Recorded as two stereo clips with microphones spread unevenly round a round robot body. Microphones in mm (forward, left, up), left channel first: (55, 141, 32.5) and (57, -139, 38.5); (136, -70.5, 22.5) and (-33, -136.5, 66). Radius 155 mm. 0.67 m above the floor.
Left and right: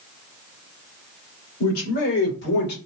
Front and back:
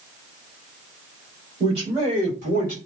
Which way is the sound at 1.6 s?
130° left.